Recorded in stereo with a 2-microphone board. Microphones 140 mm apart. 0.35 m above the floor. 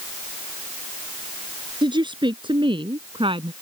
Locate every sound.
1.8 s a woman speaking: 35° right (ahead or behind); by 3.5 s 40° right (ahead or behind)